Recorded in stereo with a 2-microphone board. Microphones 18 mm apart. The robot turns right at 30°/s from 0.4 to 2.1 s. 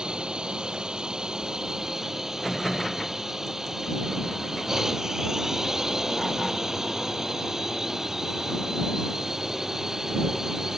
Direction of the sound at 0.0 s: 90° right.